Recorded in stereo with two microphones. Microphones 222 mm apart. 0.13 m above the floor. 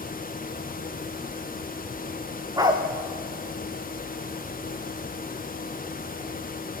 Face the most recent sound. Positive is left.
turn(degrees=-15)  # may be behind; listen again after turning